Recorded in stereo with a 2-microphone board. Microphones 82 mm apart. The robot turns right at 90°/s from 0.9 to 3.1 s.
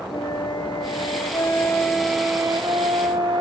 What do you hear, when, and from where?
0.1 s a flute: 80° left, 0.5 m; by 3.4 s 80° right, 0.5 m